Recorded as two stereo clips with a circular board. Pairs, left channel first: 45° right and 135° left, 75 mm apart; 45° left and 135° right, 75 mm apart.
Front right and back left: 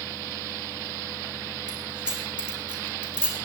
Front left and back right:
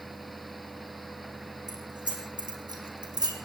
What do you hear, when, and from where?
1.7 s keys jangling: 145° right, 5.5 m; by 3.4 s 150° right, 4.5 m